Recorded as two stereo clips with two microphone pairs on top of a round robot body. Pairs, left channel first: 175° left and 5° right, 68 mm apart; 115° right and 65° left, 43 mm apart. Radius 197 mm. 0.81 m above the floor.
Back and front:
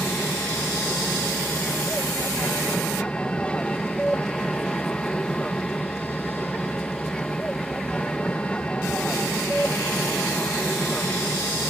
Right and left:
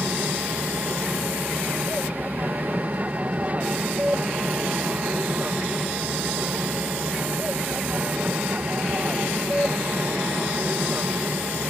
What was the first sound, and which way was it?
An aircraft, 105° left.